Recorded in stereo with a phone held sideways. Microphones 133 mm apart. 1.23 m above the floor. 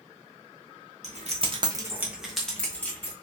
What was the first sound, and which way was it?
Keys jangling, 60° right (ahead or behind).